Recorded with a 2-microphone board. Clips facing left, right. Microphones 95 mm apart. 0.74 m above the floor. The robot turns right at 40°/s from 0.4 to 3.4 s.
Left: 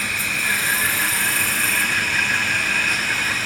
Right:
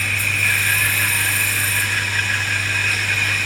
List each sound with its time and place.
0.0 s an insect: 15° left, 1.1 m; by 3.5 s 135° left, 1.1 m